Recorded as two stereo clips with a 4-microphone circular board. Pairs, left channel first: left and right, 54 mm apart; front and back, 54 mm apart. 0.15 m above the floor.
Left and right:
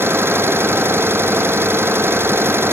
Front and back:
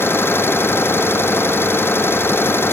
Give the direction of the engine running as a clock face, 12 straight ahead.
1 o'clock.